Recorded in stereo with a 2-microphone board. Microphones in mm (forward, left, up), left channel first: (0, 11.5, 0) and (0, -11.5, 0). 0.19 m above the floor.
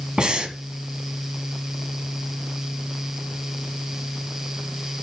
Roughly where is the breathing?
Right.